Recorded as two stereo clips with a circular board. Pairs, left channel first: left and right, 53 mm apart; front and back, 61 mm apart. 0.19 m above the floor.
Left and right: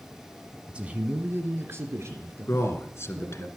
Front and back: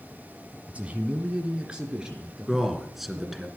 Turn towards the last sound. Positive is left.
turn(degrees=90)